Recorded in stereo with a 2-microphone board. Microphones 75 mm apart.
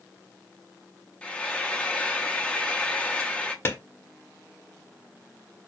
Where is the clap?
35° left (ahead or behind), 1.0 m.